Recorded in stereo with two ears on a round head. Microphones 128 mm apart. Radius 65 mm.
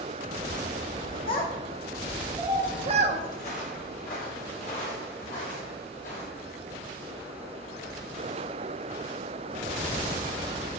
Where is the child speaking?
35° left (ahead or behind), 0.8 m; by 3.2 s 50° right (ahead or behind), 0.8 m.